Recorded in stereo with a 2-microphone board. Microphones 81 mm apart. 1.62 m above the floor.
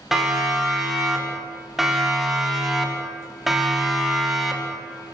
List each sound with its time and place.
0.1 s a siren: 5° right (ahead or behind), 7.5 m; by 5.2 s centre (ahead or behind), 5 m